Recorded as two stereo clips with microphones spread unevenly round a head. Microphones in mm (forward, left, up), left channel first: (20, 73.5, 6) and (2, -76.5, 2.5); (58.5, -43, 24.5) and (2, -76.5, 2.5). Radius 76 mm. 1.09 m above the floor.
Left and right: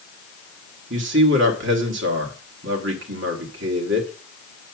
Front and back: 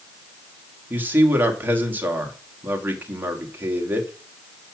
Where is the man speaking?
90° right, 1.9 m.